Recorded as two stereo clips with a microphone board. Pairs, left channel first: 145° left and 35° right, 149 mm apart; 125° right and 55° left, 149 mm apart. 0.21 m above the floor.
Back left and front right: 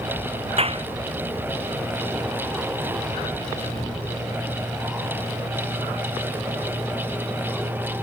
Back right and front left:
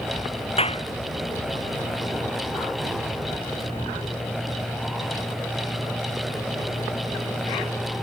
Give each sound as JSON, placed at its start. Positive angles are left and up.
{"t": 0.6, "sound": "a clap", "azimuth_deg": -80}